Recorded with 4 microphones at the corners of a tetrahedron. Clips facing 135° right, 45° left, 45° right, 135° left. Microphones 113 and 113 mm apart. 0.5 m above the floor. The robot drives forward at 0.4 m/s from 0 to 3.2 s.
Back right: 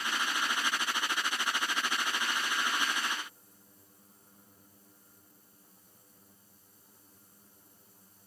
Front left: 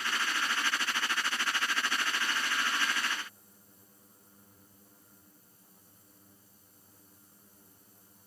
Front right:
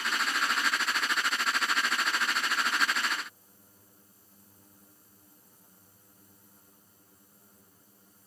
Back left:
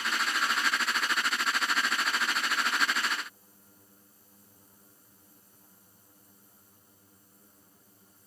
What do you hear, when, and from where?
Only background noise.